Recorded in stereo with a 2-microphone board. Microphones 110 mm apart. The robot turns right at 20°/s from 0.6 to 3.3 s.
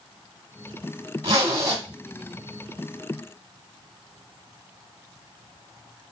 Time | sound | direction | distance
1.2 | a zipper | 45° right (ahead or behind) | 1.5 m